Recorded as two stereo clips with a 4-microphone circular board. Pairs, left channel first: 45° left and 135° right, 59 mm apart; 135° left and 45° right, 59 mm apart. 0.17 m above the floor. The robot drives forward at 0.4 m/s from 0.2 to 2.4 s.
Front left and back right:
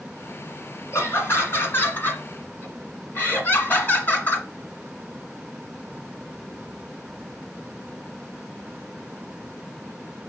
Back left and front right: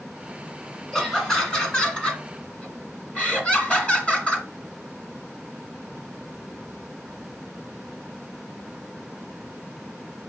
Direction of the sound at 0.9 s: 60° left.